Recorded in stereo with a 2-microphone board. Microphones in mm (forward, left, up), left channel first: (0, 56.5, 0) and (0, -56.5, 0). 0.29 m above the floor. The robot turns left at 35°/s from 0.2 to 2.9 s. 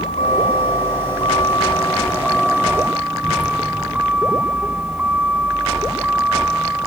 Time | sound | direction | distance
0.0 | a vehicle | 80° left | ?